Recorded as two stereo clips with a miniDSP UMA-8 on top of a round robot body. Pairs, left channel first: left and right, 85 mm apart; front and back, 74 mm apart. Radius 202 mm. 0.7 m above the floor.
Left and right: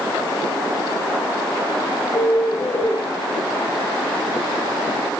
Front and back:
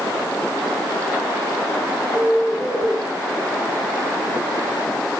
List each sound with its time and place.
2.1 s a bird: 110° left, 1.6 m